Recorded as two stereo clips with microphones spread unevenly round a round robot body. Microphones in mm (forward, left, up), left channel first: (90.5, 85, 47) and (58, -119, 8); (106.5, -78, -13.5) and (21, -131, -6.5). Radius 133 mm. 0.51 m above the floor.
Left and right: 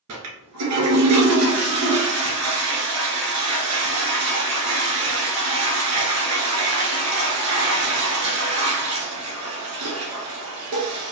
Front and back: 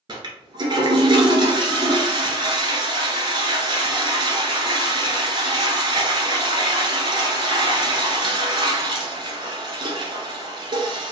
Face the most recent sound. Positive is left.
turn(degrees=-105)